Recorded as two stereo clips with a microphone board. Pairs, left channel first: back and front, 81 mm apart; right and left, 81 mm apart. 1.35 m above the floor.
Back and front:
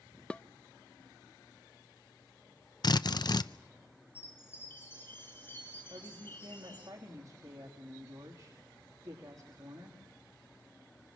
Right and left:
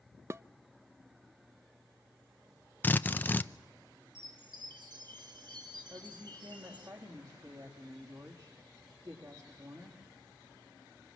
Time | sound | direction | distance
0.3 | dishes clattering | 110° left | 0.6 m
2.8 | a drill | 155° right | 0.6 m
4.2 | a chime | 115° left | 5 m
5.9 | a woman speaking | 50° left | 3 m